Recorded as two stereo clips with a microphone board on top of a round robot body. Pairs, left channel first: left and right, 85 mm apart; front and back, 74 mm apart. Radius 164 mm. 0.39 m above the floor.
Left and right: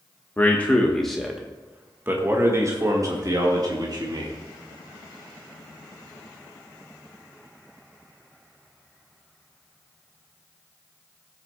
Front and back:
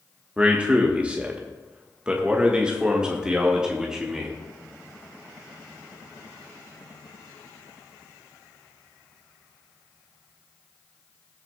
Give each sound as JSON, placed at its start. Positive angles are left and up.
{"t": 0.4, "sound": "a man speaking", "azimuth_deg": 125, "distance_m": 1.5}